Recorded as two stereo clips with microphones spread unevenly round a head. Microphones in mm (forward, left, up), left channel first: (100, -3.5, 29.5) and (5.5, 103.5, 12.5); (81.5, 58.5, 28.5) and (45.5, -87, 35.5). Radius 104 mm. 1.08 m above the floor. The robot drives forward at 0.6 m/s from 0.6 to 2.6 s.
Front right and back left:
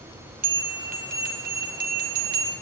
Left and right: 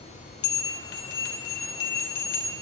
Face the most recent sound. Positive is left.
turn(degrees=130)